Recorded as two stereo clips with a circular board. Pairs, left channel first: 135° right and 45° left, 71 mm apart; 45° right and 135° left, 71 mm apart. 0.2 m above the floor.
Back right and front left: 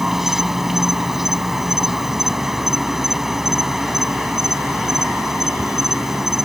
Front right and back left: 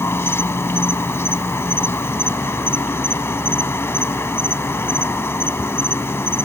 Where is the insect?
35° right.